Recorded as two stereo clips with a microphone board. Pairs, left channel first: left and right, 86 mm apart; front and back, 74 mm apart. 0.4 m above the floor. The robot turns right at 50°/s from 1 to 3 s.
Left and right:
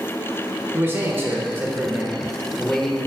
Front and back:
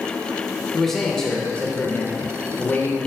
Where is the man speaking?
80° right, 0.9 m; by 3.0 s 15° left, 0.9 m.